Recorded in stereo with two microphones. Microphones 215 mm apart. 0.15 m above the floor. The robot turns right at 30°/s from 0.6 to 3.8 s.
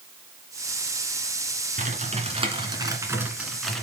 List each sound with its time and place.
1.8 s typing on a keyboard: 55° right, 2 m; by 3.8 s 5° left, 2 m